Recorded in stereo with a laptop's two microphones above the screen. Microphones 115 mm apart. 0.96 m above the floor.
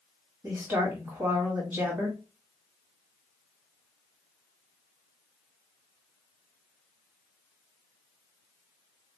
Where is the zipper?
No zipper in this recording.